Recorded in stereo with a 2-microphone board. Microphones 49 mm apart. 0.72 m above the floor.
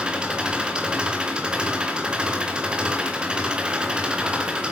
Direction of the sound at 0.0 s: 20° right (ahead or behind).